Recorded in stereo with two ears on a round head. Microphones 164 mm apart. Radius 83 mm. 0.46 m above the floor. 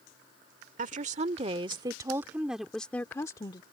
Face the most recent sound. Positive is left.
turn(degrees=25)  # may be behind; listen again after turning